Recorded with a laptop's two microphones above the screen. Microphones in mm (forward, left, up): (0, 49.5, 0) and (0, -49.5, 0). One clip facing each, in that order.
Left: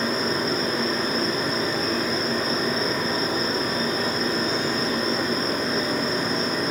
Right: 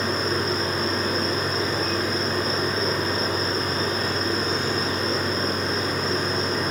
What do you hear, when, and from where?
0.0 s a machine running: 20° right (ahead or behind), 5 m